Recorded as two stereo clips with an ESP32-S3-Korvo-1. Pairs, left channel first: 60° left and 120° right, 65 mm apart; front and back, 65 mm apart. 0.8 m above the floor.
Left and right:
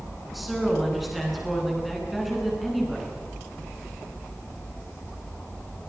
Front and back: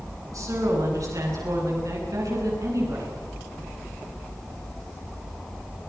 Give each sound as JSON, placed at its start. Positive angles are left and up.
{"t": 0.3, "sound": "a woman speaking", "azimuth_deg": 150, "distance_m": 10.0}